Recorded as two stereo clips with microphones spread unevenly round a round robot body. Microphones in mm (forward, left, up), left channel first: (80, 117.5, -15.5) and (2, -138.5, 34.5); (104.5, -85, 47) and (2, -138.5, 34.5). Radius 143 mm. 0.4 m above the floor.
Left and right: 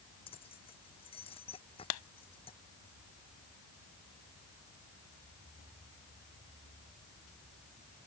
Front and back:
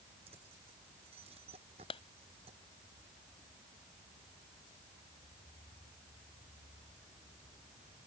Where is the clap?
85° left.